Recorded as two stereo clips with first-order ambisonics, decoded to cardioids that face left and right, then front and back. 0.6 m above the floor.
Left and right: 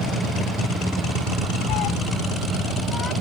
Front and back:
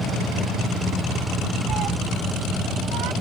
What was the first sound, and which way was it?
A cat meowing, 120° left.